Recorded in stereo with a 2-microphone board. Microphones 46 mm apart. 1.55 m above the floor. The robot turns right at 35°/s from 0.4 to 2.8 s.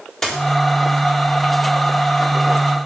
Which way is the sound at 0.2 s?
10° left (ahead or behind).